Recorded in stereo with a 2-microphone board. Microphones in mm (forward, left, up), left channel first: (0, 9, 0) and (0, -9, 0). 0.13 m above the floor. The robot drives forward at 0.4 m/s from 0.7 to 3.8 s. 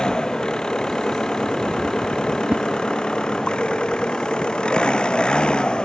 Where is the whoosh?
60° right (ahead or behind).